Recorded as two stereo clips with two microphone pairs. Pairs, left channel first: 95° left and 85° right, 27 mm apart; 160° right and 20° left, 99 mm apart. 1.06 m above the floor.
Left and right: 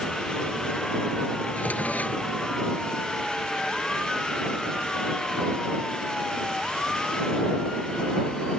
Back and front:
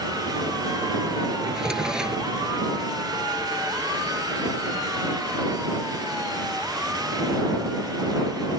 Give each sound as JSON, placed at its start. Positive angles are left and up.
{"t": 1.5, "sound": "a drawer", "azimuth_deg": 105}